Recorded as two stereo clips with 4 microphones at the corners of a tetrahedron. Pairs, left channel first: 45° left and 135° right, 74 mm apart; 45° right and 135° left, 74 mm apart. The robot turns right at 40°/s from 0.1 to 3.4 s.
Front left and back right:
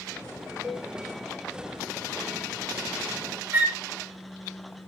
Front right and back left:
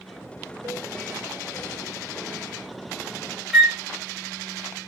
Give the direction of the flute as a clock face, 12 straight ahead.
5 o'clock.